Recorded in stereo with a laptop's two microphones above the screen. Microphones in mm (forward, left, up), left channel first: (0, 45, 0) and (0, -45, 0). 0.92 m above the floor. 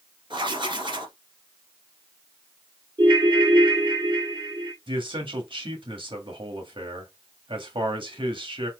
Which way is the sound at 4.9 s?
65° right (ahead or behind).